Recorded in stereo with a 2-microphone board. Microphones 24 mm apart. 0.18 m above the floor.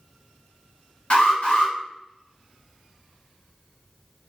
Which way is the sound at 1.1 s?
50° left (ahead or behind).